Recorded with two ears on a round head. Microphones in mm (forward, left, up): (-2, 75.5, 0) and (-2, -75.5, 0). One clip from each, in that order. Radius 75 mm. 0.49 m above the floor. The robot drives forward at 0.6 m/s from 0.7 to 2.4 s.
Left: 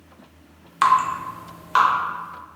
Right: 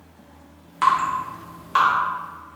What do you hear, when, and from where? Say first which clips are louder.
0.8 s dripping: left 1 dB; 40° left (ahead or behind), 0.6 m; by 1.9 s 20° left (ahead or behind), 1.1 m